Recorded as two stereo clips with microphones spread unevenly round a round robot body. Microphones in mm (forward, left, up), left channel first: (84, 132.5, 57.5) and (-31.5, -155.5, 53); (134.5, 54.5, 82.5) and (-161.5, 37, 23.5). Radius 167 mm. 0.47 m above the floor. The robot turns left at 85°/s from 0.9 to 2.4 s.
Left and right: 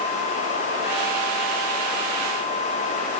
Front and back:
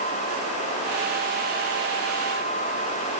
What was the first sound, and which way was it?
Only background noise.